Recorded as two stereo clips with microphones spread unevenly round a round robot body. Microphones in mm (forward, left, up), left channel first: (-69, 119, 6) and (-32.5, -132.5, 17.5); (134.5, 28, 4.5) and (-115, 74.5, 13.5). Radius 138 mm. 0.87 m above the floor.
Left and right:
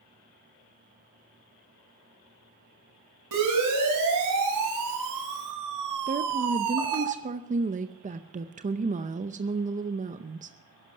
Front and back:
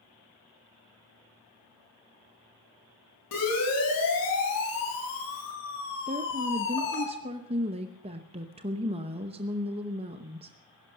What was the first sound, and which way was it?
A siren, 45° right.